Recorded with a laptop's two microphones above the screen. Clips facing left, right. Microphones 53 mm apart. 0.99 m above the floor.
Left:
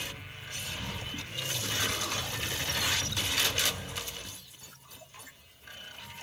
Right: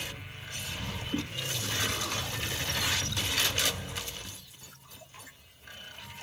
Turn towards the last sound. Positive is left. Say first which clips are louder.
# right 7 dB
turn(degrees=-70)  # may be behind; listen again after turning